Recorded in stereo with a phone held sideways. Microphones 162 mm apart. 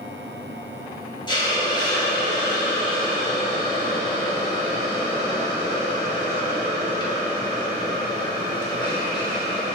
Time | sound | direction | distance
1.3 | a hiss | 25° left (ahead or behind) | 0.8 m